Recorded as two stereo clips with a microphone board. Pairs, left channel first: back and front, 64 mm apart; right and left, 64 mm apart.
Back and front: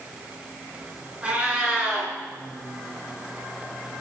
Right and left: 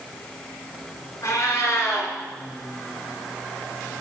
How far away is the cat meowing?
About 1.8 m.